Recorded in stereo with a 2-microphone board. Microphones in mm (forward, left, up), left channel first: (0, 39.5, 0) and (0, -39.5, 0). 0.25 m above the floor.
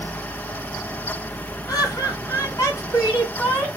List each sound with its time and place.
1.7 s laughter: 55° left (ahead or behind), 1.9 m; by 3.7 s 30° left (ahead or behind), 2 m